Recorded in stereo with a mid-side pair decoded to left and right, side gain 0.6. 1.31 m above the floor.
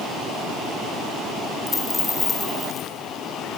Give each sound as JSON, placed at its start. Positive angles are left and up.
{"t": 1.7, "sound": "a dropped coin", "azimuth_deg": 20, "distance_m": 4.5}